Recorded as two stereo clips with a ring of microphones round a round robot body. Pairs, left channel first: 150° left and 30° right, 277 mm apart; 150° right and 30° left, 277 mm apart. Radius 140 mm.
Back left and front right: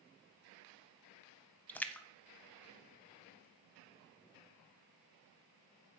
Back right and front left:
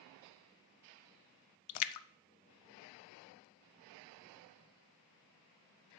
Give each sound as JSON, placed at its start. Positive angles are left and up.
{"t": 1.7, "sound": "a splash", "azimuth_deg": -125, "distance_m": 0.6}